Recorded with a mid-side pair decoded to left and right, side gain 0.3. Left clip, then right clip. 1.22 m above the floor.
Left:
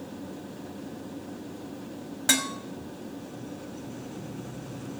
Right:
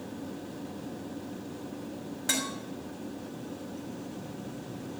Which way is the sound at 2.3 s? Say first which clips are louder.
Left 6 dB; 65° left.